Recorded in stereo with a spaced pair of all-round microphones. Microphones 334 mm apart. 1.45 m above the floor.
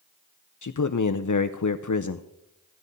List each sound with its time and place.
0.6 s a man speaking: 55° left (ahead or behind), 0.5 m